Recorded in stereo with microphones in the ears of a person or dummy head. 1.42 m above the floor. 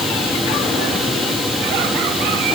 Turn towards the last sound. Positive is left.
No sound to turn to.